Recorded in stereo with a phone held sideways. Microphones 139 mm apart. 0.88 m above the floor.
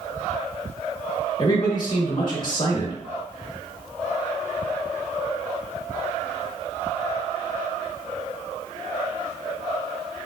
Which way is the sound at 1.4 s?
35° left (ahead or behind).